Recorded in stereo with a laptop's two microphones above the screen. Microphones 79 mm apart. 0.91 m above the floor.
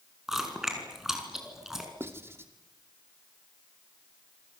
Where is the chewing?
5° right (ahead or behind), 5.5 m.